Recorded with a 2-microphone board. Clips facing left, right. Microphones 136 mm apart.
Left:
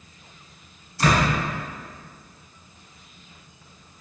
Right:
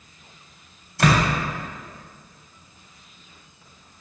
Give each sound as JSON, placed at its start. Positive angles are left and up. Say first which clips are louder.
{"t": 1.0, "sound": "a door slam", "louder": "right 1 dB", "side_deg": -85, "distance_m": 3.0}